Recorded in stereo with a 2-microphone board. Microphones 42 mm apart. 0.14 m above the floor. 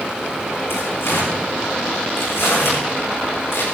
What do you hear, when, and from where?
0.7 s tearing paper: 80° left, 9.5 m